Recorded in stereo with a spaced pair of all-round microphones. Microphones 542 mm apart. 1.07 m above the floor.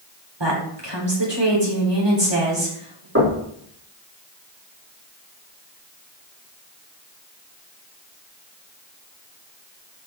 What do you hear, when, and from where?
0.4 s a woman speaking: 50° right (ahead or behind), 3.5 m
3.1 s knocking: 25° right (ahead or behind), 3 m